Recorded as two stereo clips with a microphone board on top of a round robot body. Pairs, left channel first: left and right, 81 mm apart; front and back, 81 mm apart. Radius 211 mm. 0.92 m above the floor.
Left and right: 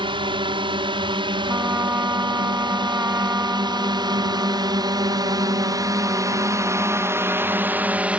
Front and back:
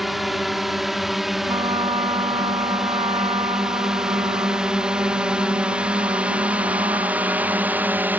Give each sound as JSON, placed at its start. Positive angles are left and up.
{"t": 0.0, "sound": "a drone", "azimuth_deg": -90}
{"t": 1.5, "sound": "a trumpet", "azimuth_deg": -155}